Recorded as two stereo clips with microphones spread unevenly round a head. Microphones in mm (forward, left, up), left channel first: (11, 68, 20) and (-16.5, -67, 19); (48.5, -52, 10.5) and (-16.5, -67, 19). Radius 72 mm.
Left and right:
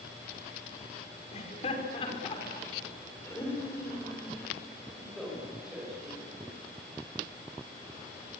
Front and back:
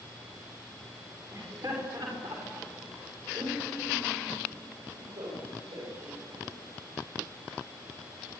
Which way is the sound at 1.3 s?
120° left.